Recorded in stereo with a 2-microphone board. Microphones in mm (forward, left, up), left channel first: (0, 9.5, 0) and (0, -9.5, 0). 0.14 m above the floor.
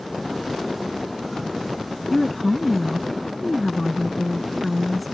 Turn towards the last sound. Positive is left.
turn(degrees=0)  # may be behind; listen again after turning